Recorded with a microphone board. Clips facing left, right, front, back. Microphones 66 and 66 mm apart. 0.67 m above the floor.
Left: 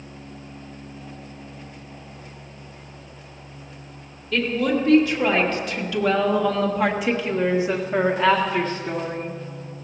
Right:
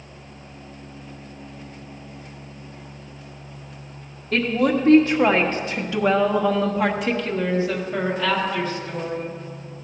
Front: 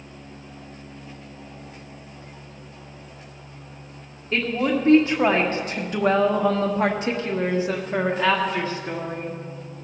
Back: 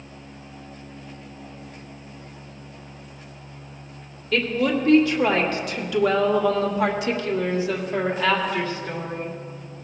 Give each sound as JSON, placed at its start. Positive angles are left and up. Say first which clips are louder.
{"t": 4.3, "sound": "a woman speaking", "louder": "right 2 dB, back 1 dB", "azimuth_deg": -60, "distance_m": 1.8}